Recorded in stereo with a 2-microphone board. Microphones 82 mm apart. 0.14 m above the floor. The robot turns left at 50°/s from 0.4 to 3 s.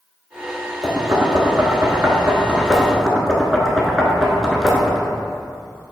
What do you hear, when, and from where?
0.8 s knocking: 45° right (ahead or behind), 1.1 m; by 5.1 s 5° left (ahead or behind), 1.1 m